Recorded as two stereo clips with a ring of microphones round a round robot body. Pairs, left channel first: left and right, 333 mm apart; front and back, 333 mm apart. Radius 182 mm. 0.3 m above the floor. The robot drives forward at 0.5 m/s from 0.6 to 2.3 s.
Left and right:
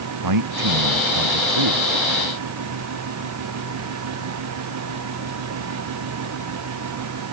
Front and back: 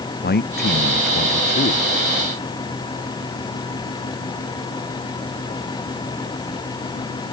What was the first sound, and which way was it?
A man speaking, 60° right.